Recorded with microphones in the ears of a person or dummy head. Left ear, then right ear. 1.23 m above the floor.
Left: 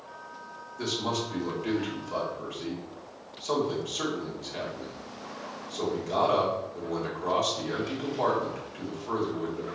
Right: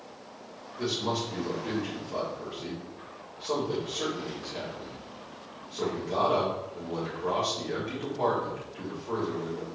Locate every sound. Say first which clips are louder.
0.8 s a man speaking: even; 55° left (ahead or behind), 1.8 m